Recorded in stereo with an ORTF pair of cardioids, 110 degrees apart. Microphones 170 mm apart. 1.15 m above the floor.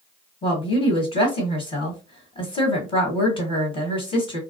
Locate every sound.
0.4 s a woman speaking: 30° left, 1.2 m